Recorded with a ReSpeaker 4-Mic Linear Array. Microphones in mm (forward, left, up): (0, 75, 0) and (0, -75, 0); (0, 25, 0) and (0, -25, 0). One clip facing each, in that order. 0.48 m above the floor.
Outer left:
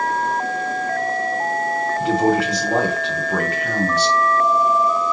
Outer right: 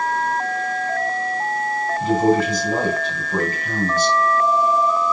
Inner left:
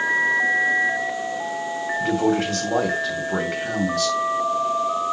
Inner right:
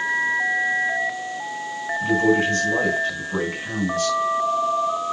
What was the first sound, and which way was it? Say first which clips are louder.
A man speaking: outer right 1 dB, inner right 3 dB; 70° left (ahead or behind).